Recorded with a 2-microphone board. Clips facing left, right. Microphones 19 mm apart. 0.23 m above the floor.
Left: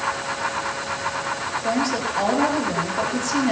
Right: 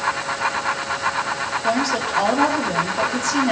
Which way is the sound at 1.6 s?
10° right (ahead or behind).